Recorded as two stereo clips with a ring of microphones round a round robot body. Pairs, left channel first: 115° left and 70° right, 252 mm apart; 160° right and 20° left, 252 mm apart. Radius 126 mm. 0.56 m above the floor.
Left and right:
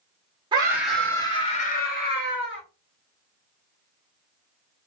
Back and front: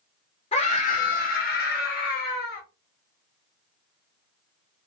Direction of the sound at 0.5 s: 120° right.